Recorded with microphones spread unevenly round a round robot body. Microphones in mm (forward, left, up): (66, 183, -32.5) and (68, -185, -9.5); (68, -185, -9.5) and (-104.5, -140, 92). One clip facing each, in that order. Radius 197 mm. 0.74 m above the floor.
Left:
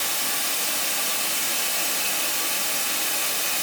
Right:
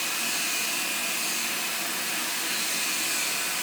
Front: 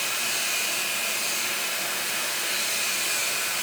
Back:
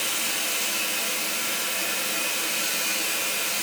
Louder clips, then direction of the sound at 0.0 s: Left 2 dB, back 2 dB; 105° left.